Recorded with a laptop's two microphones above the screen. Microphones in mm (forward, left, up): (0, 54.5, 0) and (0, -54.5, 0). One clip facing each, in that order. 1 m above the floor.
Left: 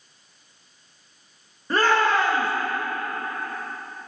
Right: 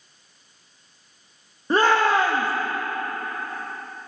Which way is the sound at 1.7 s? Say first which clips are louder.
Right 2 dB; 20° right (ahead or behind).